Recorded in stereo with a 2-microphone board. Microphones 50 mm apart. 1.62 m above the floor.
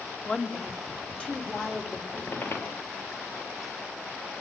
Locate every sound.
0.2 s a woman speaking: 20° left (ahead or behind), 3.5 m; by 2.0 s 25° left (ahead or behind), 5.5 m
2.1 s a squeak: 55° left (ahead or behind), 3.5 m